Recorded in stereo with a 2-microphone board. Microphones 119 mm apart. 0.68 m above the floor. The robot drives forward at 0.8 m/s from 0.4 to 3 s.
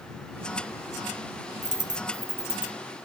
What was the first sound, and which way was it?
A dropped coin, 85° right.